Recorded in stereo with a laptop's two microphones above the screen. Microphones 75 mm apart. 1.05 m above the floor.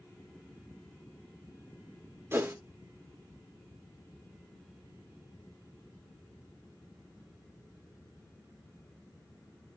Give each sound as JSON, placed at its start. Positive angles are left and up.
{"t": 2.3, "sound": "a whoosh", "side_deg": -35, "distance_m": 0.9}